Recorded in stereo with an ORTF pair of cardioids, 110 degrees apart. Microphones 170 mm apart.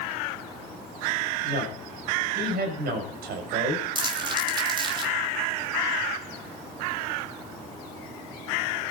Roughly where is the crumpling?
Ahead right.